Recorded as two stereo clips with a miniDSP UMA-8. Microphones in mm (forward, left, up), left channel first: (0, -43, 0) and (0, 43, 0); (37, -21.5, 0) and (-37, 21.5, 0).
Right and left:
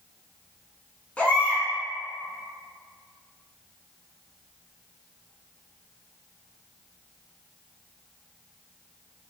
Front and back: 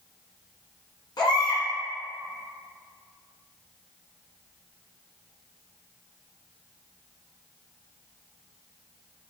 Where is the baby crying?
20° right, 1.0 m.